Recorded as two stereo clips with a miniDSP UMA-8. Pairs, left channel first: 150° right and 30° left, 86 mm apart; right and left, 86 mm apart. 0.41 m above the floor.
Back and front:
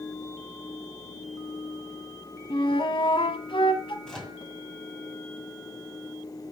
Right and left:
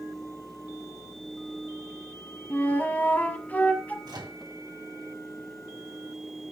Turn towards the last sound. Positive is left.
turn(degrees=130)